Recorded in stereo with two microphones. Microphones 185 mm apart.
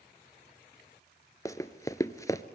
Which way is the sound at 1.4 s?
20° left (ahead or behind).